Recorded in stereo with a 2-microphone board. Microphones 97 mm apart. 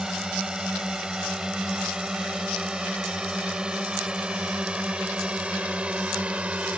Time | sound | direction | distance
0.0 | a drone | 5° right (ahead or behind) | ?